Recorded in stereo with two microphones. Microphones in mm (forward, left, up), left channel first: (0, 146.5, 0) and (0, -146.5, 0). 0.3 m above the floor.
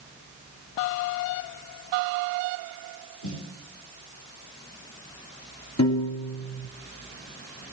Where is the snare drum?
85° left, 3 m.